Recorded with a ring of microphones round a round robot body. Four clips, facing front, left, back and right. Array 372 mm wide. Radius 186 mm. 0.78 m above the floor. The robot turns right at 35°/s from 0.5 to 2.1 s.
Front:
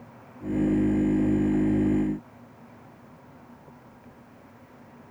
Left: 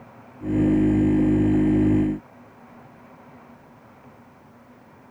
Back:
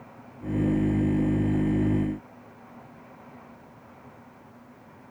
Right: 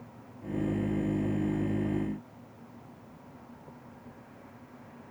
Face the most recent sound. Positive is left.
No sound to turn to.